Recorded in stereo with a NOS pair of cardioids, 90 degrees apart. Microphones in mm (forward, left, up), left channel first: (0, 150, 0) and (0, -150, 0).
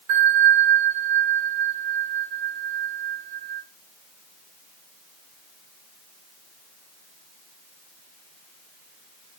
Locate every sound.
0.1 s a bell: 65° right, 1.1 m